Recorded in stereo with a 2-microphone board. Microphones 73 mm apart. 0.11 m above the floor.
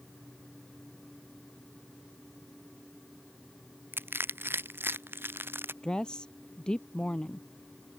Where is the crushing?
30° right (ahead or behind).